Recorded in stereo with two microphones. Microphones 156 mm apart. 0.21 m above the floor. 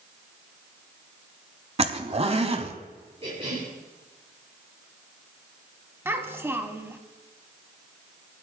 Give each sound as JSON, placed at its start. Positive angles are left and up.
{"t": 1.8, "sound": "a zipper", "side_deg": -40, "distance_m": 0.9}
{"t": 3.2, "sound": "a cough", "side_deg": -40, "distance_m": 4.0}
{"t": 6.0, "sound": "a child speaking", "side_deg": -15, "distance_m": 1.0}